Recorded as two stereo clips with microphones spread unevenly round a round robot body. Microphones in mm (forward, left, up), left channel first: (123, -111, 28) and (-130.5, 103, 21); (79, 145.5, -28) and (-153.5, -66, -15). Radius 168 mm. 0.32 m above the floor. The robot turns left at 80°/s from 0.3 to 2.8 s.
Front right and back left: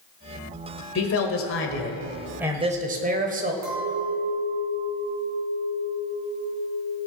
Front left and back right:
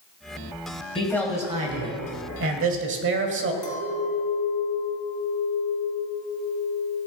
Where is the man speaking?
20° right, 1.7 m; by 3.5 s 170° right, 1.7 m.